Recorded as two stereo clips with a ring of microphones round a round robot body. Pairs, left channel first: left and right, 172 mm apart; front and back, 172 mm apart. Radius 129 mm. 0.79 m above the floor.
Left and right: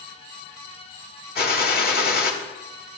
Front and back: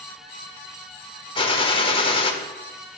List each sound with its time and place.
1.4 s a gunshot: 60° left, 1.4 m